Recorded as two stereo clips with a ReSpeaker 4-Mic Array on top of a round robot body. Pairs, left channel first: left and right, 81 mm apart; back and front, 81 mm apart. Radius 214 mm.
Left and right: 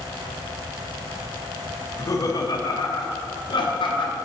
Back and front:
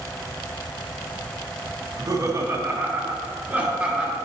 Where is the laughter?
40° left, 1.9 m; by 4.2 s 80° left, 3 m.